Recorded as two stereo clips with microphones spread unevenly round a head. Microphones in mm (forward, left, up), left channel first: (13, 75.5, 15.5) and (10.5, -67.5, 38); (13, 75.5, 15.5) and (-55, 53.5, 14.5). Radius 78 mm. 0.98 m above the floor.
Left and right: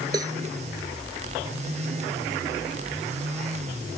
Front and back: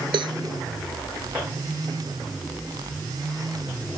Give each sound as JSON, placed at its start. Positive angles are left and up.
{"t": 0.1, "sound": "a cowbell", "azimuth_deg": -160}